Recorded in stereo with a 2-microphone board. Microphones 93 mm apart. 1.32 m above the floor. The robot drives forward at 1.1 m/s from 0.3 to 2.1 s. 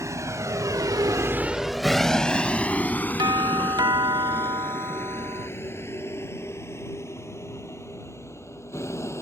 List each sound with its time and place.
0.0 s a vehicle: 35° right (ahead or behind); by 9.2 s 30° left (ahead or behind)
3.2 s a doorbell: 55° right (ahead or behind)